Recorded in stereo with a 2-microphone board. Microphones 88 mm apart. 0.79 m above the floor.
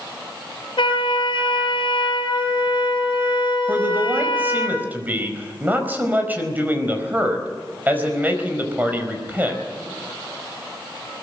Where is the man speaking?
20° right (ahead or behind), 4.5 m.